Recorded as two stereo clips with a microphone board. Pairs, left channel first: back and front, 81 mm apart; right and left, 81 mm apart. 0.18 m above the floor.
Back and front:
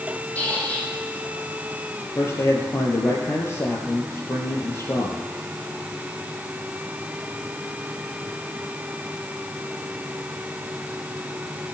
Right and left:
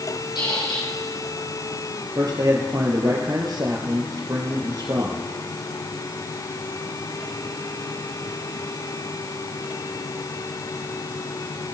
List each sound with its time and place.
0.3 s a squeak: 110° right, 5 m
2.1 s a man speaking: 125° left, 3.5 m